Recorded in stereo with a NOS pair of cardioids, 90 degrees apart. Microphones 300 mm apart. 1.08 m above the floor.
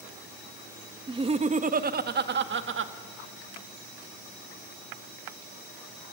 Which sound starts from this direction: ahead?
Laughter, at 1.1 s.